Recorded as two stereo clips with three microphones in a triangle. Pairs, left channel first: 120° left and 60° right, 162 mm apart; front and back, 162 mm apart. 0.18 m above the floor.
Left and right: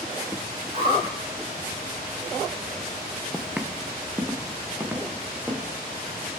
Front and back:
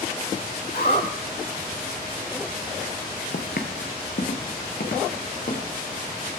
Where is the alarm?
Straight ahead, 7.5 m.